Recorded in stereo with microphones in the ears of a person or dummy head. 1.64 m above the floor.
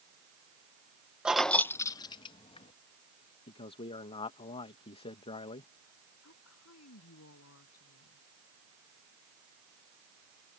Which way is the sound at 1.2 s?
5° right (ahead or behind).